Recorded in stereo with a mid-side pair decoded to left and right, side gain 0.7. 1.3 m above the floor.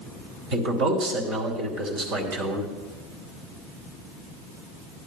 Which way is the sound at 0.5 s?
65° right.